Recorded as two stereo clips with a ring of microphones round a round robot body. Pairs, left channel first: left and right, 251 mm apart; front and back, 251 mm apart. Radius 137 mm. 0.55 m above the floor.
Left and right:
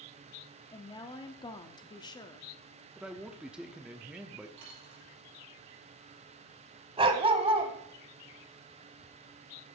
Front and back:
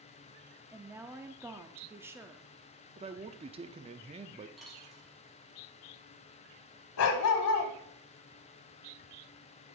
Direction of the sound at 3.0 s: 170° right.